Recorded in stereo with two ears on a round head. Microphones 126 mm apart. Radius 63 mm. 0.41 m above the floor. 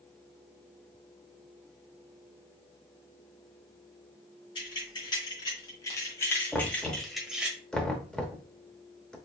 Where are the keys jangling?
35° left (ahead or behind), 2.5 m; by 7.5 s 10° right (ahead or behind), 1.1 m.